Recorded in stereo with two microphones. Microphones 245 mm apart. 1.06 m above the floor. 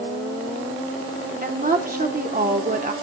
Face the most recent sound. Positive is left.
turn(degrees=-35)  # may be behind; listen again after turning